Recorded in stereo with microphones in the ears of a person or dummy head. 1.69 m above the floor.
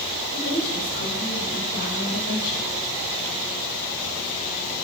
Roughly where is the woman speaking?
Left.